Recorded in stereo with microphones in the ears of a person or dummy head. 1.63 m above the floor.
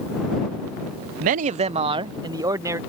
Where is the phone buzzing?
No phone buzzing in this recording.